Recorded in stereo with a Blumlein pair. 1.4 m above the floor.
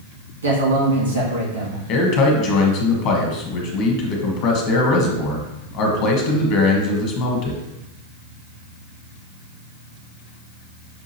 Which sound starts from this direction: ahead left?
A man speaking, at 1.9 s.